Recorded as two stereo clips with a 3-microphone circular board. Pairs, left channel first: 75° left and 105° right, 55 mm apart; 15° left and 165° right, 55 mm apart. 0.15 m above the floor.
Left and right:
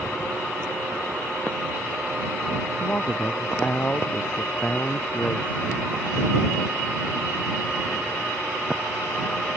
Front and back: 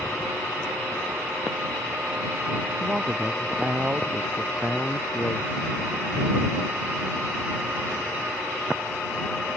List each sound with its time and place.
2.8 s a man speaking: 135° left; by 5.7 s 140° left